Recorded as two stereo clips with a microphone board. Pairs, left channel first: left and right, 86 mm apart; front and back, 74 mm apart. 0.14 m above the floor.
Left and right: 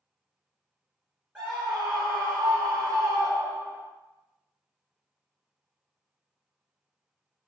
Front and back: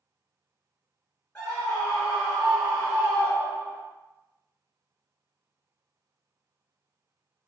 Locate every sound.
1.4 s a scream: 45° right, 1.3 m; by 3.8 s 110° right, 2.0 m